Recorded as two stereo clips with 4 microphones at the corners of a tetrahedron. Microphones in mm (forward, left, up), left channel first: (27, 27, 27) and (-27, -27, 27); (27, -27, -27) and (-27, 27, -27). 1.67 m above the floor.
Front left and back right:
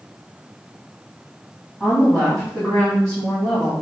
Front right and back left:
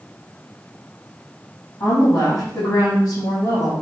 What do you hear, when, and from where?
1.8 s a woman speaking: 30° right, 2 m